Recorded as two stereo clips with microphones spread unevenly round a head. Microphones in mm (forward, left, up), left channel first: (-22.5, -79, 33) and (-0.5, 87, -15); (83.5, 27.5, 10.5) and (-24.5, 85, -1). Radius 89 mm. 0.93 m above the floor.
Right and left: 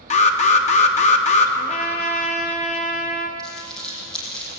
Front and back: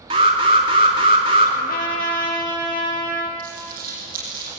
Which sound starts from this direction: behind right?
An alarm, at 0.1 s.